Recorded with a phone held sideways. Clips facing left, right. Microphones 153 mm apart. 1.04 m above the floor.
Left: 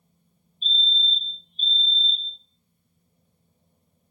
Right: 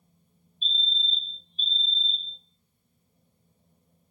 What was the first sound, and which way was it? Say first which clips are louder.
A fire alarm: left 4 dB; 20° right (ahead or behind).